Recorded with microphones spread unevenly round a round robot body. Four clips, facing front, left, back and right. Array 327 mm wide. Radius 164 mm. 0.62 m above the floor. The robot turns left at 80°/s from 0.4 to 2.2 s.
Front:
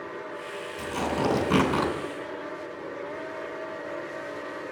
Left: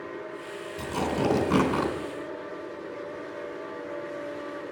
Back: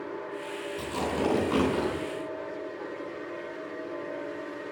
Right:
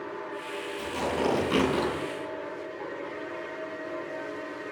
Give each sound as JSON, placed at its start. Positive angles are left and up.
{"t": 0.8, "sound": "tearing paper", "azimuth_deg": 100, "distance_m": 3.0}